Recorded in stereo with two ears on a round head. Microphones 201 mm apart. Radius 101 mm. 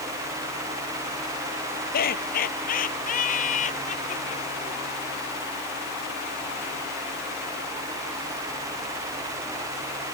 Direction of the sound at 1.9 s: 40° left (ahead or behind).